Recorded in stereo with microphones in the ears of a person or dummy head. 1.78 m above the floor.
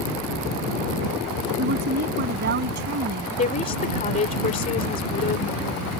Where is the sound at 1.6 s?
50° right (ahead or behind); by 3.3 s 55° right (ahead or behind).